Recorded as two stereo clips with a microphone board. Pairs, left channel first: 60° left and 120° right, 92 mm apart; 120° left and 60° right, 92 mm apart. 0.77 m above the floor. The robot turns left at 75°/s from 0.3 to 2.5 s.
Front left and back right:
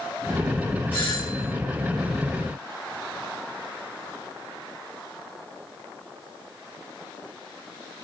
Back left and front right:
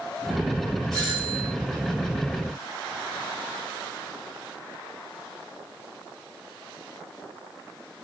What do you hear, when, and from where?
0.9 s a doorbell: 10° right, 7 m; by 1.5 s 55° right, 7 m